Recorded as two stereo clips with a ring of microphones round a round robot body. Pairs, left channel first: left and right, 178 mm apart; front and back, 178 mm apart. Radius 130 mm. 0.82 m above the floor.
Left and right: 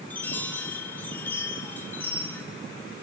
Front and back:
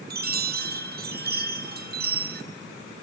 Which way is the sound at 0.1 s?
170° left.